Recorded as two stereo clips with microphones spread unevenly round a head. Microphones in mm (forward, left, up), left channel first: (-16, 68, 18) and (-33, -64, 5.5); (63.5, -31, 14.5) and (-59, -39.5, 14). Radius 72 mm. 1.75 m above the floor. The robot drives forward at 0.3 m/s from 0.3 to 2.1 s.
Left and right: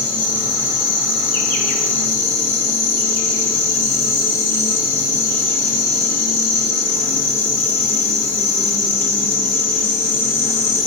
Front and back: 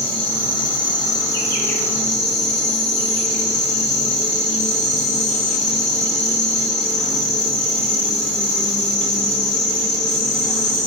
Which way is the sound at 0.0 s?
55° left.